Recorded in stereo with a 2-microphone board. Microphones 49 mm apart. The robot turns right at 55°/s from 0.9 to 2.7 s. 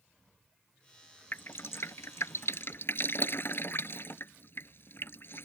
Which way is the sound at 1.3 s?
45° left (ahead or behind).